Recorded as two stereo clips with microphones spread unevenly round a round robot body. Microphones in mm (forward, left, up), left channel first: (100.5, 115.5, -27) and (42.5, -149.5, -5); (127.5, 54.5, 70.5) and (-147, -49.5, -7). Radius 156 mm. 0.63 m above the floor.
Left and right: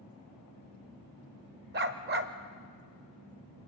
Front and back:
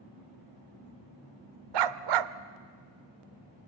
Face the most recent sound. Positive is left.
turn(degrees=-160)